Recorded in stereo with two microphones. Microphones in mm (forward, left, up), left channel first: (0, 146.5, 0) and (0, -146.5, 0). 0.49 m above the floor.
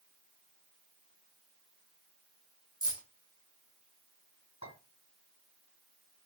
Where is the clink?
65° left (ahead or behind), 2.5 m.